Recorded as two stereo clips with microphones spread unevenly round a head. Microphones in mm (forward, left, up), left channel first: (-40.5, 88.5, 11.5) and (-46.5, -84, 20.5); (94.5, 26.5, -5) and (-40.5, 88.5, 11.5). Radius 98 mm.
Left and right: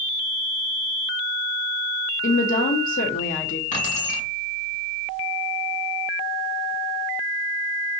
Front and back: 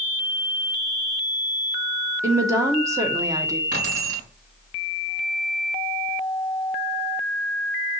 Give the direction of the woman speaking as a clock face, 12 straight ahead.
9 o'clock.